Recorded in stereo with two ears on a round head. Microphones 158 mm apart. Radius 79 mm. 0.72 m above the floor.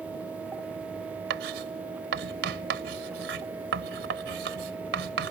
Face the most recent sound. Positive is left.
turn(degrees=-75)  # may be behind; listen again after turning